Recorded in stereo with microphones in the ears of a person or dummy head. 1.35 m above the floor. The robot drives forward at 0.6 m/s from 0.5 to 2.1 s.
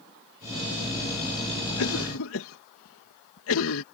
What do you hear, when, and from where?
1.8 s a cough: 80° left; by 3.8 s 75° left (ahead or behind)